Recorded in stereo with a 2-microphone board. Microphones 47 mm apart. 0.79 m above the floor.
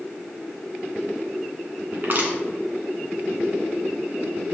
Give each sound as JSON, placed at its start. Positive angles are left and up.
{"t": 1.9, "sound": "crushing", "side_deg": -45, "distance_m": 2.0}